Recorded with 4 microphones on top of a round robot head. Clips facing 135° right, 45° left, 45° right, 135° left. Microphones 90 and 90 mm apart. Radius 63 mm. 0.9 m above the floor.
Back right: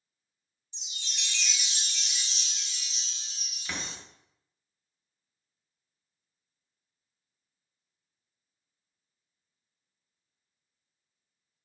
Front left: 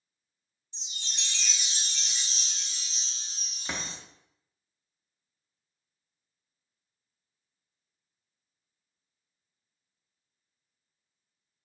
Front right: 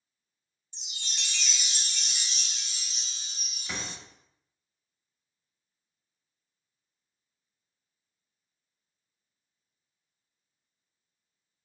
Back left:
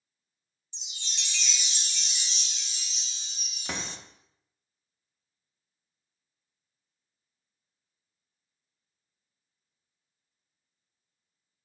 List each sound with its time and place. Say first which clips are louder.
0.7 s a chime: front left 1 dB, front right 2 dB; 10° right, 0.5 m
3.6 s a door slam: front left 1 dB, back left 2 dB; 110° left, 0.7 m